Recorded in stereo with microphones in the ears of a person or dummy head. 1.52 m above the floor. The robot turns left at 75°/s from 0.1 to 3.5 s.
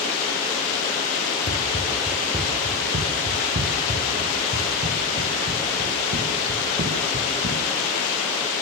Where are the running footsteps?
40° left (ahead or behind), 5 m; by 7.6 s 55° right (ahead or behind), 8 m.